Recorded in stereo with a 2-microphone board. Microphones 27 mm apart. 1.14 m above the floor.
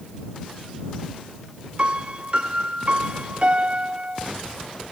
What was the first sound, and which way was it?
A piano, 45° right (ahead or behind).